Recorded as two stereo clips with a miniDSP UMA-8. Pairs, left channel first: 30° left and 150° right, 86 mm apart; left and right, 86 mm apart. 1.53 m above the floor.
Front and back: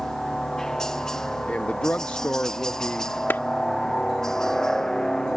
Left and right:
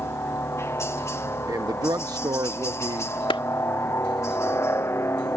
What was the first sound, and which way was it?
A helicopter, 110° left.